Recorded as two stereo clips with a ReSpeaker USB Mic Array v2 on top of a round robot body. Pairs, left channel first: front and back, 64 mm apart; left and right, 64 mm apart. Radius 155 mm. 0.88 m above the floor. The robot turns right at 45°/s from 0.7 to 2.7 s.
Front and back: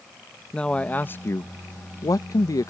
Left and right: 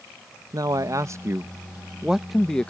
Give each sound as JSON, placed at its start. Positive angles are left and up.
{"t": 0.5, "sound": "a man speaking", "azimuth_deg": -75}